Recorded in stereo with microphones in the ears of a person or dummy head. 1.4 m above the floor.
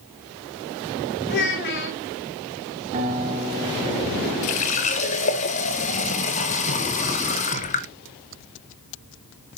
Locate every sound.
1.3 s a child speaking: 50° left (ahead or behind), 2.5 m
2.9 s a guitar: 40° right (ahead or behind), 1.7 m
4.4 s a running tap: 30° left (ahead or behind), 0.5 m